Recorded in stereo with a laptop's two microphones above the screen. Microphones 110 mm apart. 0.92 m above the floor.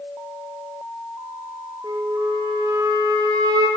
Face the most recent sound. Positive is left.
turn(degrees=-40)  # may be behind; listen again after turning